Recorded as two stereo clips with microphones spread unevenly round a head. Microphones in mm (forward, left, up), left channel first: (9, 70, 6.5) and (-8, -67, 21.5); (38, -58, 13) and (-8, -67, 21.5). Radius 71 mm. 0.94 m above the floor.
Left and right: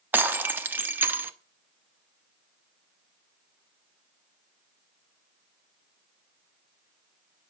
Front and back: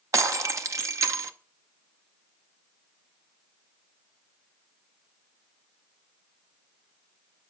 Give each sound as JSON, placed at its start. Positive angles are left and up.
{"t": 0.1, "sound": "breaking glass", "azimuth_deg": -175, "distance_m": 0.9}